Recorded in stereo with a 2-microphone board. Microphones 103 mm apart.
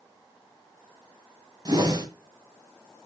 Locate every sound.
1.6 s a whoosh: 40° right (ahead or behind), 2 m